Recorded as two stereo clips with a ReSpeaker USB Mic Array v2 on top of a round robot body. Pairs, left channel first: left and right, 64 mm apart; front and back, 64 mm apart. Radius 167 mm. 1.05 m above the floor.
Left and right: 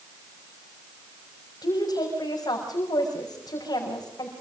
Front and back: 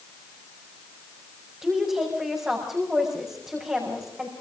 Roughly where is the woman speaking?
Left.